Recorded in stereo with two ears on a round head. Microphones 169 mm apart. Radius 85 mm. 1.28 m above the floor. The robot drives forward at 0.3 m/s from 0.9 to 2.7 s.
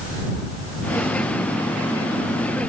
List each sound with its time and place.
Only background noise.